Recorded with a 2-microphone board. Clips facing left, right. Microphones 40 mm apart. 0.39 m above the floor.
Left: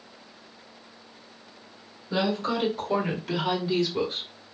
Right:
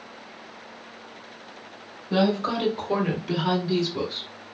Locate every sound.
2.1 s a woman speaking: 35° right (ahead or behind), 1.9 m; by 4.3 s 25° left (ahead or behind), 1.6 m